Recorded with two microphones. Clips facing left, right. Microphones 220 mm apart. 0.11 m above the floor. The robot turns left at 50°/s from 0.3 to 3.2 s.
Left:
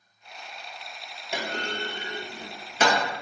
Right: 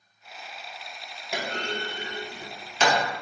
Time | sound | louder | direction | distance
1.3 | a clunk | right 1 dB | 5° right (ahead or behind) | 0.8 m